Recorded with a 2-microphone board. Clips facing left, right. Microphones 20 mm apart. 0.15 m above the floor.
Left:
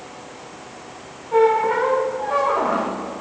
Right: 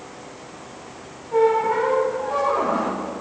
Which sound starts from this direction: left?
A squeak, at 1.3 s.